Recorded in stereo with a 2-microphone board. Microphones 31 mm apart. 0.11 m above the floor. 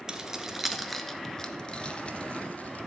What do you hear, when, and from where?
0.1 s keys jangling: 25° right (ahead or behind), 1.0 m; by 2.9 s 50° left (ahead or behind), 1.3 m